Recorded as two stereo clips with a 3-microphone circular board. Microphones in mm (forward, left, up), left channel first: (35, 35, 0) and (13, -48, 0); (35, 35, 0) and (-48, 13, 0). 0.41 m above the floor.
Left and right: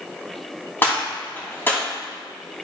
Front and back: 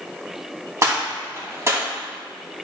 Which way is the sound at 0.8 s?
140° left.